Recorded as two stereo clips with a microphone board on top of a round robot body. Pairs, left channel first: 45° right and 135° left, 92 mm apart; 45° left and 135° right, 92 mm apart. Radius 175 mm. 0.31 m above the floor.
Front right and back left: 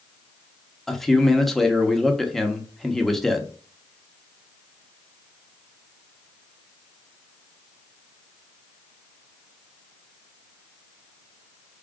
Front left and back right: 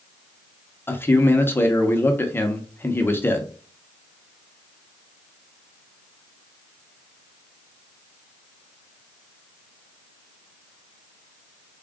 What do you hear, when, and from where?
0.9 s a man speaking: 40° left, 1.1 m